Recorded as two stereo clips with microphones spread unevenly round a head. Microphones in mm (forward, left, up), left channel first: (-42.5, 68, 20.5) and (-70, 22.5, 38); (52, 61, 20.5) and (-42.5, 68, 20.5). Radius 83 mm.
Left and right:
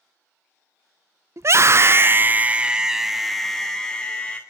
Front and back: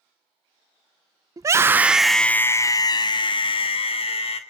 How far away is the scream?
About 0.7 m.